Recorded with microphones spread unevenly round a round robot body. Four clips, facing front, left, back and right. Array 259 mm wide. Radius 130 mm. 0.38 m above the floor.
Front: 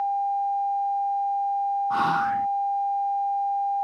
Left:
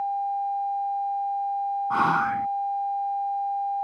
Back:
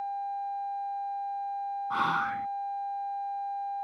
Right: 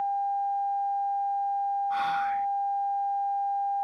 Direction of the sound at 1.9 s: 70° left.